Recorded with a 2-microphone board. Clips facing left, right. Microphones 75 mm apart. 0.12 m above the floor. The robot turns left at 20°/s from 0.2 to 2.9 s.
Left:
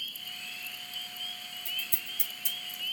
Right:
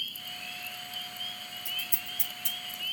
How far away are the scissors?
About 5.5 m.